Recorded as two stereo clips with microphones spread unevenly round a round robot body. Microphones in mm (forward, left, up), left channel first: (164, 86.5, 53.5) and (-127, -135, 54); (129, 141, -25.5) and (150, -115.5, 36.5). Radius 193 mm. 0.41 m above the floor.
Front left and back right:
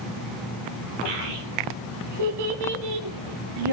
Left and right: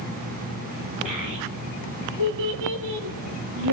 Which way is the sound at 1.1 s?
130° right.